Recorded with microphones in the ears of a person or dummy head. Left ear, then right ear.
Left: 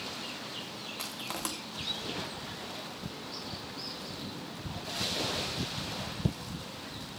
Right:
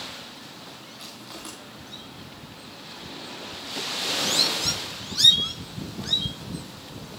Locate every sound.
1.0 s crushing: 35° left (ahead or behind), 2.5 m